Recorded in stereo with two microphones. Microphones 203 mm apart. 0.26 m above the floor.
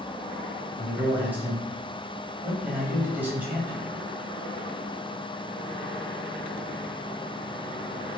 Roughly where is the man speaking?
Centre.